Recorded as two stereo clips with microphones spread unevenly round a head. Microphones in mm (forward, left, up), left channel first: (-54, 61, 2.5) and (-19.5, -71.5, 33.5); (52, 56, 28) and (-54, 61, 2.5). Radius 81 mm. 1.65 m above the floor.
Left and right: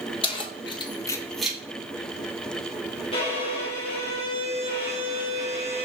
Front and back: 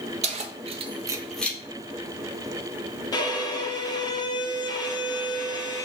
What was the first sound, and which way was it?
Keys jangling, 165° left.